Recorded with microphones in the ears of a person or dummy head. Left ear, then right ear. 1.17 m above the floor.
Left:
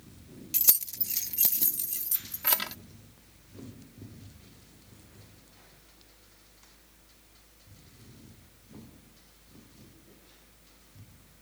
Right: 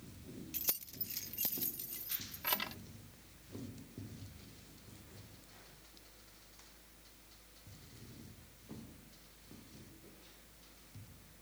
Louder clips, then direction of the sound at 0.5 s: Left 13 dB; 30° left (ahead or behind).